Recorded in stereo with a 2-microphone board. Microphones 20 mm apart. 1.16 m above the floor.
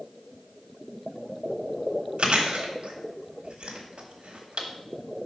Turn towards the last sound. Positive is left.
turn(degrees=-60)  # may be behind; listen again after turning